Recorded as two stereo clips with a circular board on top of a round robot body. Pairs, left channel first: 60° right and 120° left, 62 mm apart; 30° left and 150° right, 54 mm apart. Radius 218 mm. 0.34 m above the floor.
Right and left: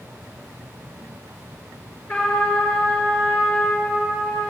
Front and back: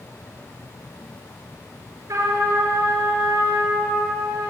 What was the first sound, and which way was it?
A trumpet, 125° right.